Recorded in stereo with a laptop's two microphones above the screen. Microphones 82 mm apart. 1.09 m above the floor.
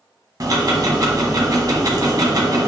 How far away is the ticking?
About 1.2 m.